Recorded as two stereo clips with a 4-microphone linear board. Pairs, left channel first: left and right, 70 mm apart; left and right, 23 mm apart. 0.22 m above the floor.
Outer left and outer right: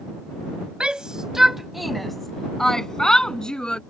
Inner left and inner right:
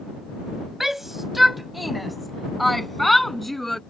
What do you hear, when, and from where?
0.8 s a shout: 15° right (ahead or behind); by 3.8 s 10° left (ahead or behind)